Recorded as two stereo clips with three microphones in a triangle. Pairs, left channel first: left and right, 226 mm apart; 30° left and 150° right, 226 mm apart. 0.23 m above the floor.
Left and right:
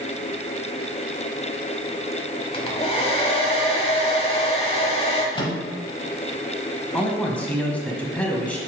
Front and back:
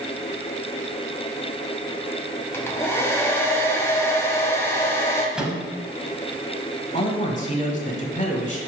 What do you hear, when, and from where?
2.5 s a hair dryer: 95° left, 1.0 m
5.3 s a microwave: 130° left, 1.0 m
6.9 s a man speaking: 10° left, 1.2 m